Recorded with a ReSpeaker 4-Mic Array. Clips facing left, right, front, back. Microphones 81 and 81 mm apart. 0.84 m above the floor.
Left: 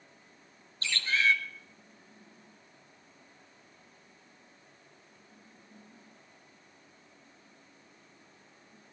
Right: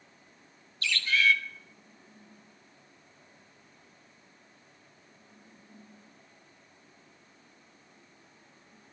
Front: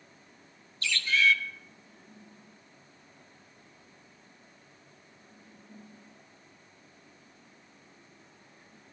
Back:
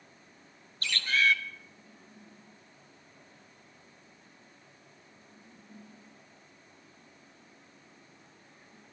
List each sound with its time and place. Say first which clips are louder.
0.8 s a bird: right 2 dB, front 1 dB; 145° left, 1.3 m